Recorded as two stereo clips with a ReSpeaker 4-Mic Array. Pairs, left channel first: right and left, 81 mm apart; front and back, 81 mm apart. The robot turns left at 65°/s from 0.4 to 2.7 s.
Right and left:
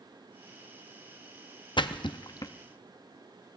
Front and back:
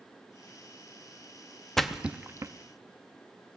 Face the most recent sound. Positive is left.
turn(degrees=-145)